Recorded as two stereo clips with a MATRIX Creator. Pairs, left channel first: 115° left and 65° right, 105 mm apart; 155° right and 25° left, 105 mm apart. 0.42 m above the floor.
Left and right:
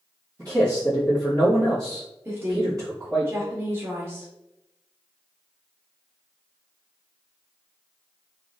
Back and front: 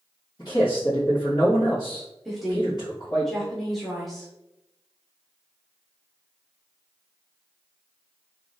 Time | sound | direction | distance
0.4 | a man speaking | 115° right | 1.6 m
2.2 | a woman speaking | 70° right | 0.8 m